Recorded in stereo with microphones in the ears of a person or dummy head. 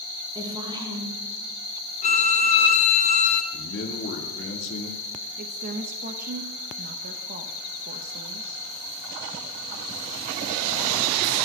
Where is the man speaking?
55° left (ahead or behind), 2.5 m.